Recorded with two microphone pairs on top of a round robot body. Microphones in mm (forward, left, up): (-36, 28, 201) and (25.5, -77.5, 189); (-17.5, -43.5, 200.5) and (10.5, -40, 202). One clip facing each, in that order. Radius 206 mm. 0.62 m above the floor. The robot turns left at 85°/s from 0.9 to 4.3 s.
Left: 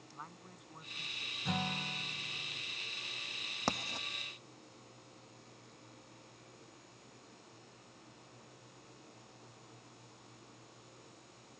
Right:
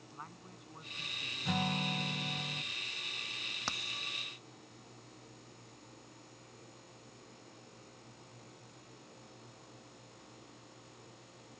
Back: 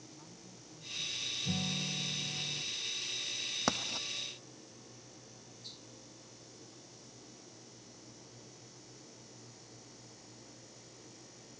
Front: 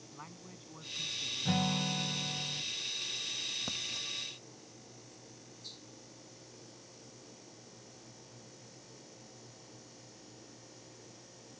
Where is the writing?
165° left; by 4.1 s 130° left.